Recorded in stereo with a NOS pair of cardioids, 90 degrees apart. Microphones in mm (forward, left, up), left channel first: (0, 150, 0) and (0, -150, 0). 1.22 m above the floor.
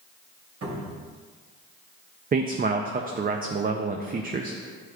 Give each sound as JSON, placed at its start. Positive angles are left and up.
{"t": 0.6, "sound": "a cupboard door", "azimuth_deg": -60, "distance_m": 3.0}
{"t": 2.3, "sound": "a man speaking", "azimuth_deg": -30, "distance_m": 0.6}